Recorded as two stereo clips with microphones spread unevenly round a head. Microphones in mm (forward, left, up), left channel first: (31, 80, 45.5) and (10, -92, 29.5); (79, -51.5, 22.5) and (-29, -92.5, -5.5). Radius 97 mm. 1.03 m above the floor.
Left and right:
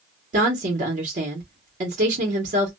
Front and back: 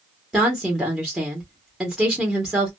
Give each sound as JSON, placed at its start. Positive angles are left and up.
{"t": 0.3, "sound": "a woman speaking", "azimuth_deg": -85, "distance_m": 1.1}